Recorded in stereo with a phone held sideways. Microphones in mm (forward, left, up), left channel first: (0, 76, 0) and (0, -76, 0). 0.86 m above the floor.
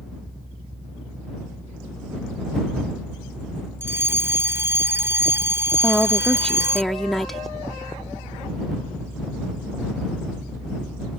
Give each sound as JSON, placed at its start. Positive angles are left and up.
{"t": 0.0, "sound": "a fan", "side_deg": -85}
{"t": 3.8, "sound": "a fire alarm", "side_deg": -15}
{"t": 5.8, "sound": "a woman speaking", "side_deg": 0}